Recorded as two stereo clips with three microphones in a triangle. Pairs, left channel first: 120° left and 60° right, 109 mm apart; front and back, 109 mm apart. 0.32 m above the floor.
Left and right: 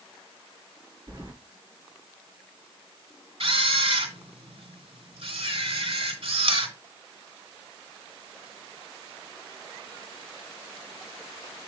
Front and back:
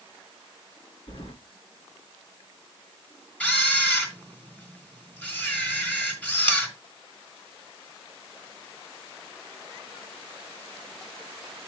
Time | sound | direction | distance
1.1 | keys jangling | 10° right | 3.5 m
3.4 | a camera shutter | 75° right | 2.5 m